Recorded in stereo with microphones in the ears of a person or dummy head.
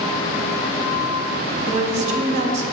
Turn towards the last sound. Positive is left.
turn(degrees=-40)  # may be behind; listen again after turning